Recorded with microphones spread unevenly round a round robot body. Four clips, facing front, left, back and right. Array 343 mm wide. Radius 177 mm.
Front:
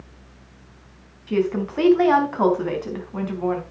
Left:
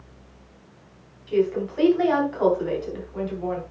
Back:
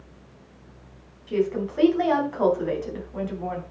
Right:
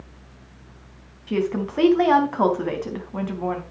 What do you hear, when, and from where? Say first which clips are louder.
1.3 s a woman speaking: left 2 dB, front 2 dB; 60° right, 4.5 m